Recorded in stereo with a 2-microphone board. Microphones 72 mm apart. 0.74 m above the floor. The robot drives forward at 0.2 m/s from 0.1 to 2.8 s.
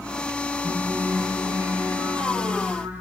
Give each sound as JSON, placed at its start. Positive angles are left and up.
{"t": 0.6, "sound": "singing", "side_deg": -55, "distance_m": 4.5}